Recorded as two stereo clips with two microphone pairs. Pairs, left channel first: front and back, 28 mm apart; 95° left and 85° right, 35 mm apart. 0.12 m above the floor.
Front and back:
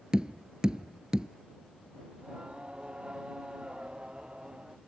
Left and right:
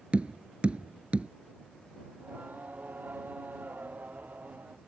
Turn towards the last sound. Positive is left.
turn(degrees=-115)